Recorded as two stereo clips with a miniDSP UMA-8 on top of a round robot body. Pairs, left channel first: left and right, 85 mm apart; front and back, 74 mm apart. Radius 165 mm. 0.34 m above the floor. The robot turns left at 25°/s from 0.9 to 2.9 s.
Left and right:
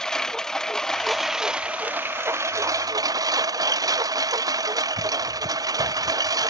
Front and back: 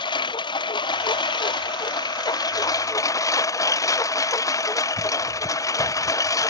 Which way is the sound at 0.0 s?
5° left.